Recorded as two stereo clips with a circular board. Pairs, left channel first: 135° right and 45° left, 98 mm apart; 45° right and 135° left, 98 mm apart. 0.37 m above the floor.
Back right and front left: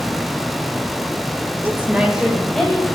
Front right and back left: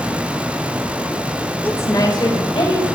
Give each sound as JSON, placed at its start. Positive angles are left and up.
{"t": 1.6, "sound": "a woman speaking", "azimuth_deg": 5, "distance_m": 1.3}